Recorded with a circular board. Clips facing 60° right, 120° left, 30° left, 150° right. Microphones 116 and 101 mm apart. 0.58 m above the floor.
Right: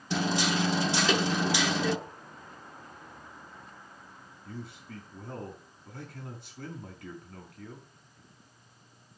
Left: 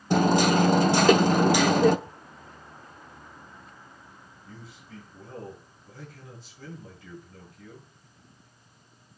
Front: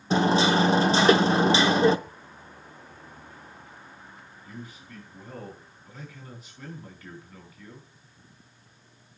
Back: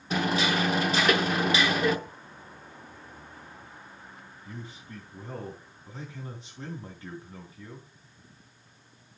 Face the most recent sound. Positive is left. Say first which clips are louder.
# right 5 dB, even
turn(degrees=-90)